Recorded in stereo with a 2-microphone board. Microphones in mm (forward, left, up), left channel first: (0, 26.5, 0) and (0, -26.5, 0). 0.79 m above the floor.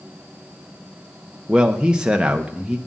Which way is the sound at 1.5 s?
15° right (ahead or behind).